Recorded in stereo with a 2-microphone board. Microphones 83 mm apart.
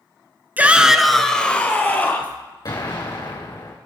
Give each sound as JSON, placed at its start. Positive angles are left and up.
{"t": 0.6, "sound": "a shout", "side_deg": -20, "distance_m": 1.1}
{"t": 2.6, "sound": "an explosion", "side_deg": 50, "distance_m": 4.0}